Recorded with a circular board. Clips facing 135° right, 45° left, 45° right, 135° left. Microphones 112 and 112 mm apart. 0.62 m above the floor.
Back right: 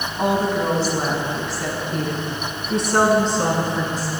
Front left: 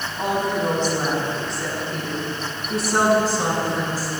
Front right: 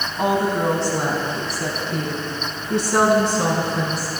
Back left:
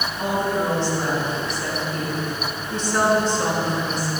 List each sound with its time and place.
0.2 s a woman speaking: 60° right, 5.5 m; by 4.1 s 35° right, 7.5 m